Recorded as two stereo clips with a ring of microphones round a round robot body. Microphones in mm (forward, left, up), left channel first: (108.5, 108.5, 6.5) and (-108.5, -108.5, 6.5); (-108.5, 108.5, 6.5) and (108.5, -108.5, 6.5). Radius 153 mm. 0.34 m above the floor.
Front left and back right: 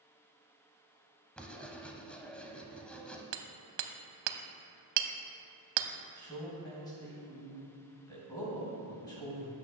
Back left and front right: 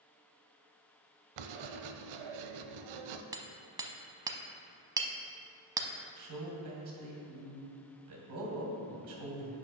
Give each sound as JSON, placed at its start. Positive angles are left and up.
{"t": 1.4, "sound": "writing", "azimuth_deg": -40, "distance_m": 0.6}
{"t": 3.3, "sound": "hammering", "azimuth_deg": -125, "distance_m": 0.6}
{"t": 6.2, "sound": "a man speaking", "azimuth_deg": -30, "distance_m": 2.5}